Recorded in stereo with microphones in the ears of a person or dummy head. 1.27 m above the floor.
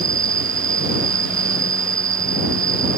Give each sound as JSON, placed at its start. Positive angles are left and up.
{"t": 0.0, "sound": "an insect", "side_deg": -20}